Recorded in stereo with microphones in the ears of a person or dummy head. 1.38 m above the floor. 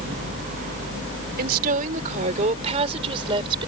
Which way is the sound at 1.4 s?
50° right (ahead or behind).